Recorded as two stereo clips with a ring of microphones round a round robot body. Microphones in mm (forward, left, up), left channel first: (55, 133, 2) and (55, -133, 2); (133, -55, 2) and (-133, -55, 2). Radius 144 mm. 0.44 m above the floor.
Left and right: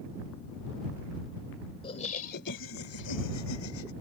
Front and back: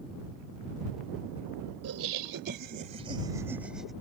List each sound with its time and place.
1.8 s laughter: 160° left; by 3.9 s 90° left